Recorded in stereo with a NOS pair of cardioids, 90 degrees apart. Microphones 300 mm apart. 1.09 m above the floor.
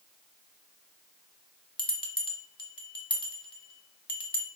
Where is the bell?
15° left, 0.6 m.